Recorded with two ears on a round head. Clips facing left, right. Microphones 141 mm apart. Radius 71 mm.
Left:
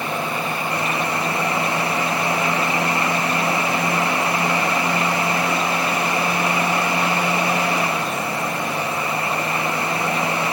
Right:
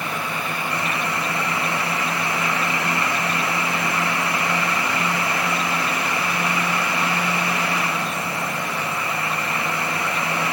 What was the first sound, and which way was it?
Only background noise.